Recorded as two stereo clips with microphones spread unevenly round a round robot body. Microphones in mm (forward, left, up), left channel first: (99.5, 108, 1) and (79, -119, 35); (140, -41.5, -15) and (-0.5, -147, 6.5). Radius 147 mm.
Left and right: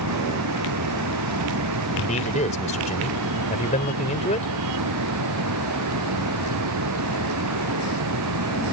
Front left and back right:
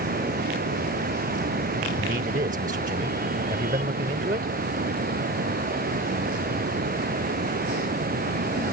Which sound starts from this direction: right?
Running water, at 0.0 s.